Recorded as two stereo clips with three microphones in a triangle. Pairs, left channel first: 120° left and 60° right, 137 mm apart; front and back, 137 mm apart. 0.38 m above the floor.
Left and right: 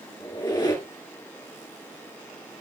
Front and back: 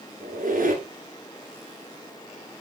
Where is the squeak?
Straight behind, 1.9 m.